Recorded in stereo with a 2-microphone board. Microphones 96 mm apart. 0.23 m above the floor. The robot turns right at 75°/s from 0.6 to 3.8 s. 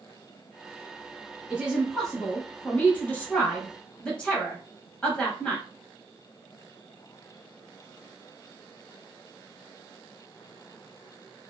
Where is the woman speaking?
10° right (ahead or behind), 1.1 m; by 5.6 s 10° left (ahead or behind), 1.1 m.